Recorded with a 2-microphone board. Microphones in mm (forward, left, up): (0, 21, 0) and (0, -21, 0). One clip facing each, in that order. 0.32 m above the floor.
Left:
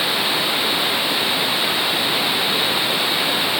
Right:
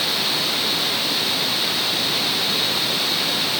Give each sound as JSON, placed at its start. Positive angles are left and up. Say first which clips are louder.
{"t": 0.0, "sound": "running water", "louder": "left 3 dB", "side_deg": 20}